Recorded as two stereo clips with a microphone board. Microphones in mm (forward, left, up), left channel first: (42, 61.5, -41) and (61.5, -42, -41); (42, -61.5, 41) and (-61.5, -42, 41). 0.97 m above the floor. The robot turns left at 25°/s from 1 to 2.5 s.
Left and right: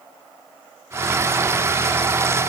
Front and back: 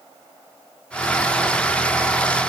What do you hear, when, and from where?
Only background noise.